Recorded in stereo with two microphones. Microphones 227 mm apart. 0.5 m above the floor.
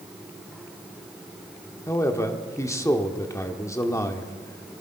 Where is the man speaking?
15° left (ahead or behind), 1.1 m.